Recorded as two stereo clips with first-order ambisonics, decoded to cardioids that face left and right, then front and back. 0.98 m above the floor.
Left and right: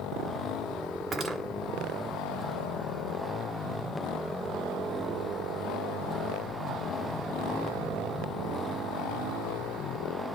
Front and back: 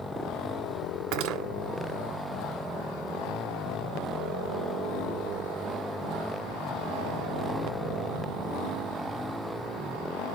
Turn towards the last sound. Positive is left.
turn(degrees=-155)